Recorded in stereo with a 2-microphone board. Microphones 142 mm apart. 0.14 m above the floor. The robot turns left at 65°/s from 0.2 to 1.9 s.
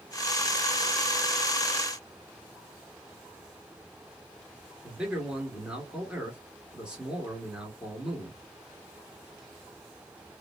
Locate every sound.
4.8 s a man speaking: 5° right (ahead or behind), 3 m